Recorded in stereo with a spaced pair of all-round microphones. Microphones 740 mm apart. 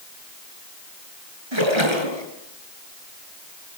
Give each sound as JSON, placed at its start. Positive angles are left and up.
{"t": 1.5, "sound": "a splash", "side_deg": -35, "distance_m": 5.0}